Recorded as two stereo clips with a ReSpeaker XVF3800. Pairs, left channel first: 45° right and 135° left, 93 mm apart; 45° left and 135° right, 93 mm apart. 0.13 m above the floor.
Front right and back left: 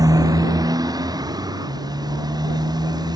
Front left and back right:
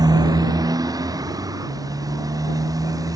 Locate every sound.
0.0 s a motorcycle: straight behind; by 3.1 s 175° left